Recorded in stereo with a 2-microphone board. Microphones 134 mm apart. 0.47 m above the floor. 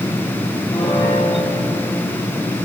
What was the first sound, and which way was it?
A piano, 40° left (ahead or behind).